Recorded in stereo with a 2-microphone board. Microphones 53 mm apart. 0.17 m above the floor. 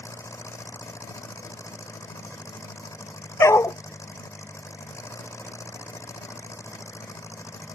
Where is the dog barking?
65° left (ahead or behind).